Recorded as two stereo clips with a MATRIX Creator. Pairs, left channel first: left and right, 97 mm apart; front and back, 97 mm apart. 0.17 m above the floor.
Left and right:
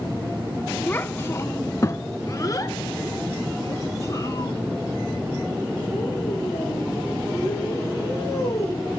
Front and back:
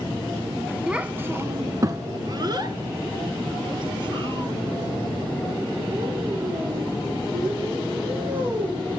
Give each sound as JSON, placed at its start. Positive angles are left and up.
{"t": 0.9, "sound": "a child speaking", "azimuth_deg": 115, "distance_m": 0.8}